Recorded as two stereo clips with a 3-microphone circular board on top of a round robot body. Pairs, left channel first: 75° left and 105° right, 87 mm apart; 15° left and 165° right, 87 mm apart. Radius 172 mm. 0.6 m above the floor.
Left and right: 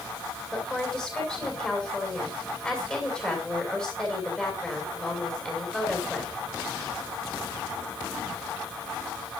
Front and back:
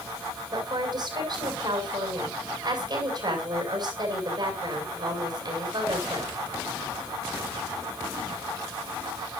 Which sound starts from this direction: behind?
A woman speaking, at 0.5 s.